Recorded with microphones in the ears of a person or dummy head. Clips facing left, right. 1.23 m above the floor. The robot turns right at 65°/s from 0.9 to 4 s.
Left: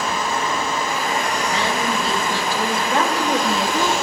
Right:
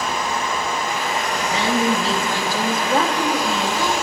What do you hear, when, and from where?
0.0 s running water: 170° right, 5.5 m; by 4.0 s 30° left, 5.5 m
1.5 s a woman speaking: 110° right, 1.7 m; by 3.9 s 50° left, 1.7 m